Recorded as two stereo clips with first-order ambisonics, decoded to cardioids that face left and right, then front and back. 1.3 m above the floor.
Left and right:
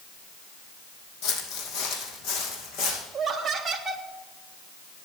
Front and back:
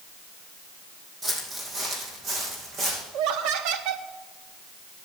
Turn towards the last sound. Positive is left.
turn(degrees=-165)